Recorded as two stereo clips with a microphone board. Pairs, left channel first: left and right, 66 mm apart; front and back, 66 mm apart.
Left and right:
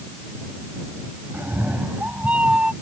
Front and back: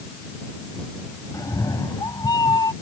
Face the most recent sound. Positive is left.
turn(degrees=-15)